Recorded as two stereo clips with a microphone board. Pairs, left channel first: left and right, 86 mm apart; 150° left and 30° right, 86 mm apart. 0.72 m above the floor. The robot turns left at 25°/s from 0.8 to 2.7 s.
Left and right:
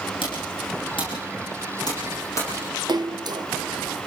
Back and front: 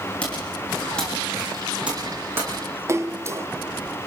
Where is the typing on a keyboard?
75° left, 9.5 m; by 2.6 s 30° left, 9.5 m.